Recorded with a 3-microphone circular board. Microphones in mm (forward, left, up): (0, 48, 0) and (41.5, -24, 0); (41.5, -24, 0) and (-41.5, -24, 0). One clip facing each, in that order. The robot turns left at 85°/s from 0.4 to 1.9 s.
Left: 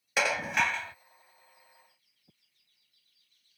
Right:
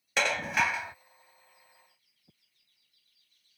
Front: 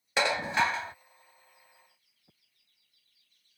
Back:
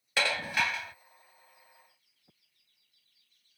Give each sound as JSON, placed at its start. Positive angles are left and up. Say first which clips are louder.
{"t": 0.2, "sound": "dishes clattering", "louder": "even, front 4 dB", "azimuth_deg": 40}